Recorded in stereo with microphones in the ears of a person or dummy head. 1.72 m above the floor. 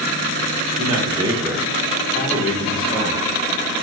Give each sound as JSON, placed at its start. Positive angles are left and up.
{"t": 0.8, "sound": "a man speaking", "side_deg": -30, "distance_m": 0.9}